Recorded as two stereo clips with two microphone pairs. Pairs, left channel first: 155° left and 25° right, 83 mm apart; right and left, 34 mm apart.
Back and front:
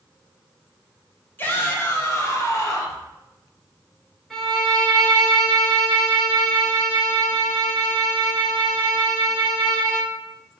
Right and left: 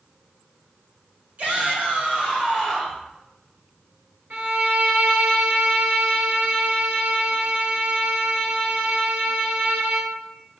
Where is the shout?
105° left, 1.8 m; by 3.0 s 150° left, 1.8 m.